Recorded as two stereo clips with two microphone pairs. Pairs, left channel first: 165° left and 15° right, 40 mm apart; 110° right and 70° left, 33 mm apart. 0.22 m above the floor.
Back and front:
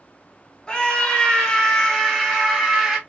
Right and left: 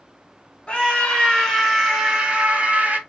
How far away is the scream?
About 1.7 m.